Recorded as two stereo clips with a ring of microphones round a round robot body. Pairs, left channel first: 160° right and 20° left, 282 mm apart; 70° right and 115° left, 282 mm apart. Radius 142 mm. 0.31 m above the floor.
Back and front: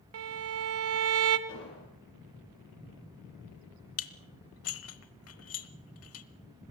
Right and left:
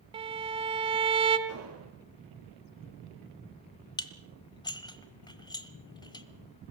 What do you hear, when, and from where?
0.1 s a violin: 45° left, 1.4 m
1.5 s an explosion: 155° left, 5 m
4.0 s dishes clattering: 140° right, 1.0 m